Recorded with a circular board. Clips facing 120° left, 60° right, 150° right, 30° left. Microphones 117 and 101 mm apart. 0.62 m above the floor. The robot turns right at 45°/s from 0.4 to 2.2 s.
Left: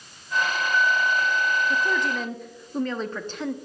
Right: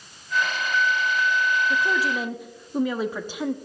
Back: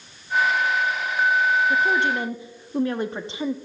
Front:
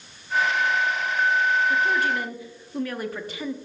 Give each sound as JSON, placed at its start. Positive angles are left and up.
{"t": 1.7, "sound": "a woman speaking", "azimuth_deg": -150, "distance_m": 0.7}